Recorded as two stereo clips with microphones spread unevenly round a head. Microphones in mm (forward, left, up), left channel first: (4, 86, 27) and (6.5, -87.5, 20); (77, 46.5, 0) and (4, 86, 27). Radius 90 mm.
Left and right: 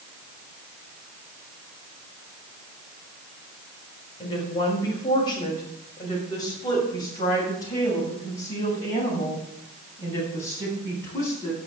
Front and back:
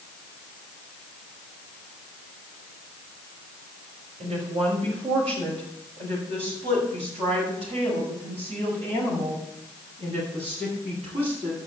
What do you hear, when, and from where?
4.2 s a woman speaking: 155° left, 5.5 m; by 11.6 s 165° left, 9 m